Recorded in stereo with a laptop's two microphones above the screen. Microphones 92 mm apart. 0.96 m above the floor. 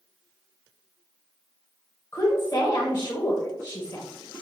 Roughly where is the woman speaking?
Left.